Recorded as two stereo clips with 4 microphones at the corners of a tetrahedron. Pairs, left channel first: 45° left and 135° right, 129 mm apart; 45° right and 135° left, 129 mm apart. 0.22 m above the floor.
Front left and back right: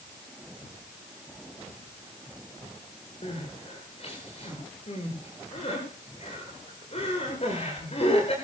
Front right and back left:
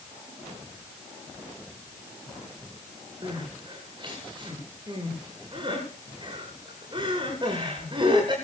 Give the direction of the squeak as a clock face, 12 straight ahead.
No squeak in this recording.